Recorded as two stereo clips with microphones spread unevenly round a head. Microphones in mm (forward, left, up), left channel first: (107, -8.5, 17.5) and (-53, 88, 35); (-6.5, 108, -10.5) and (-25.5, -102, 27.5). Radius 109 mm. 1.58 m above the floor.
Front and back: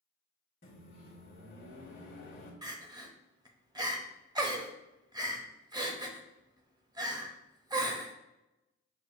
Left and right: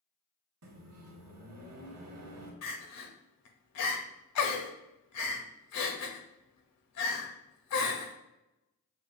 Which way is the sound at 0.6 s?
85° right.